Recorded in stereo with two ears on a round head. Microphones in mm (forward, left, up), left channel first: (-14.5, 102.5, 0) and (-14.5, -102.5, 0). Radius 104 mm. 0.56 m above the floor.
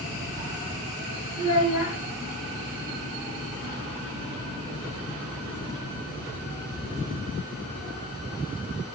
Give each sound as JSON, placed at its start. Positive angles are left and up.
{"t": 1.4, "sound": "a child speaking", "side_deg": 70, "distance_m": 2.0}